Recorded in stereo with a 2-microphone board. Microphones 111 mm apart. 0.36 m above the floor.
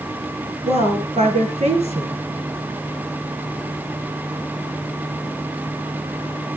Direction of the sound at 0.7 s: 80° right.